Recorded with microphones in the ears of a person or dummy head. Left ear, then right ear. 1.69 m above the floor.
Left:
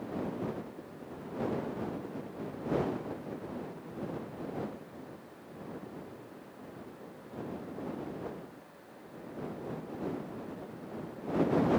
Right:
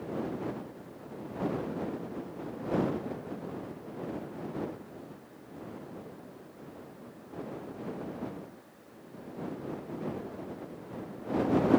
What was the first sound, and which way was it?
Only background noise.